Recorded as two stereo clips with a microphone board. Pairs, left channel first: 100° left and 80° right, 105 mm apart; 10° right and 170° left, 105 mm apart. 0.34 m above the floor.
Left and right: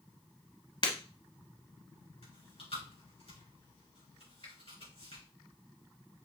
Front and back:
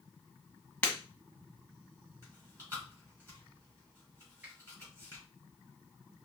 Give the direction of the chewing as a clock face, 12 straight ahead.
9 o'clock.